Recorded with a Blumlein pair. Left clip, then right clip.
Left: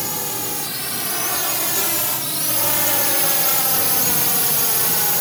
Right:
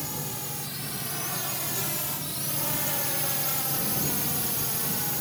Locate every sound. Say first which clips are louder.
0.0 s a drone: left 9 dB; 25° left; by 5.2 s 30° left